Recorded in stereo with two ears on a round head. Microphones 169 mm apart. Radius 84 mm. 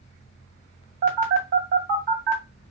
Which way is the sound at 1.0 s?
50° right (ahead or behind).